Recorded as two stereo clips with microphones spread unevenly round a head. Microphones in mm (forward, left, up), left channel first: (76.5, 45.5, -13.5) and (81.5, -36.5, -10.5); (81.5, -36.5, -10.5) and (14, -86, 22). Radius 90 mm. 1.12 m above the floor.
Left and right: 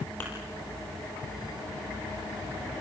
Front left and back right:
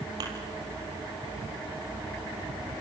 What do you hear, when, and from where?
0.2 s a thud: 170° left, 3.5 m